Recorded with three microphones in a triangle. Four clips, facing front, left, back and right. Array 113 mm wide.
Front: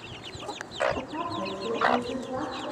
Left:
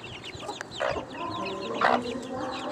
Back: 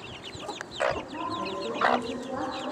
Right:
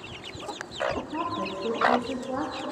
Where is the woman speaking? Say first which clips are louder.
Right 3 dB, front 1 dB; 60° right, 1.7 m; by 2.6 s 95° right, 2.5 m.